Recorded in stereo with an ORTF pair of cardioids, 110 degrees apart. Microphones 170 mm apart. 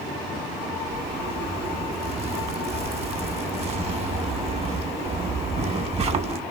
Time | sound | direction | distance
0.9 | a zipper | 40° right | 1.0 m